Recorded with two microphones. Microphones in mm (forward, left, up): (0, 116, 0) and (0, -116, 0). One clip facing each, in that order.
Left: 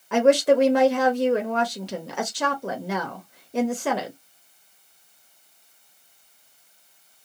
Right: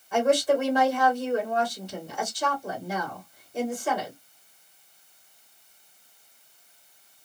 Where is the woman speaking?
80° left, 1.0 m.